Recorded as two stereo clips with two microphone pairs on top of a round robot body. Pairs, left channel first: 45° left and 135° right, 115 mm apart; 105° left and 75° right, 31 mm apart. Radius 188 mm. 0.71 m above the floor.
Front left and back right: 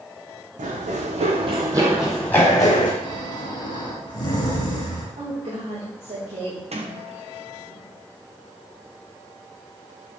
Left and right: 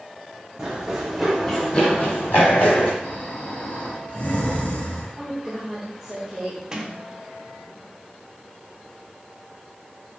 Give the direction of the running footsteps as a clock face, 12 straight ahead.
5 o'clock.